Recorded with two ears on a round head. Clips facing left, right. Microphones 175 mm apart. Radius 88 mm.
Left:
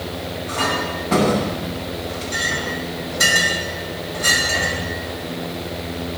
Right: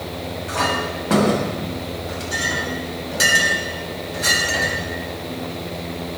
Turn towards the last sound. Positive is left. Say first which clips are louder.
# even
turn(degrees=-85)